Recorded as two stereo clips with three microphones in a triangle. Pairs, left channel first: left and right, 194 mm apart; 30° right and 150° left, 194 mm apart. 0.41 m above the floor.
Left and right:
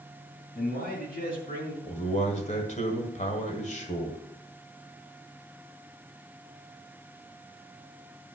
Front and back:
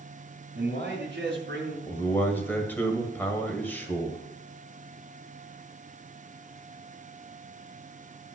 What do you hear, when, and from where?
0.6 s a man speaking: 130° left, 4 m
1.9 s a man speaking: 50° left, 1.9 m